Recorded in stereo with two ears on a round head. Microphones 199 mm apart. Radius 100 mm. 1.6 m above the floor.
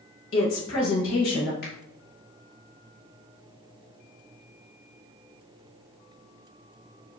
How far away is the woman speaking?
About 1.4 m.